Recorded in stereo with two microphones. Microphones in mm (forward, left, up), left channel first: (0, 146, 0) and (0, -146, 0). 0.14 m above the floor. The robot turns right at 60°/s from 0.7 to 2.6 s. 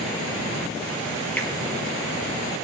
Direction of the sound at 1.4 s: 5° left (ahead or behind).